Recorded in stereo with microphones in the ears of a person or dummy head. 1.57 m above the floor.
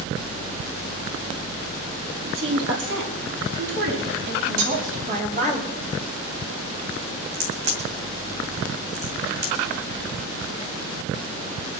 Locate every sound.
2.2 s a woman speaking: 80° right, 3 m; by 5.6 s 50° right (ahead or behind), 5 m
4.6 s cutlery clinking: 75° right (ahead or behind), 2.5 m
7.3 s a crack: 55° right (ahead or behind), 2.5 m